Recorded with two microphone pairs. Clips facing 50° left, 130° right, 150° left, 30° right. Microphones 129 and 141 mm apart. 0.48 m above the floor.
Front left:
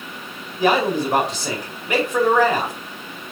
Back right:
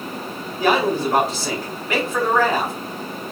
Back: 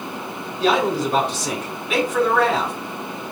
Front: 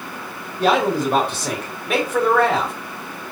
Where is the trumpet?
I don't hear a trumpet.